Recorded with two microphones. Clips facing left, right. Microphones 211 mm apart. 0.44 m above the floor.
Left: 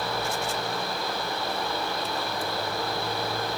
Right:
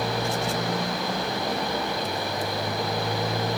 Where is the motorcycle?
80° right.